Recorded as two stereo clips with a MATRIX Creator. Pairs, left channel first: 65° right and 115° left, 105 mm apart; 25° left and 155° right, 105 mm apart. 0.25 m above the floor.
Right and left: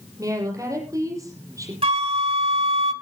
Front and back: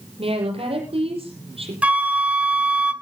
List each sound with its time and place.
0.2 s a woman speaking: 170° left, 6.5 m
1.8 s a flute: 125° left, 1.4 m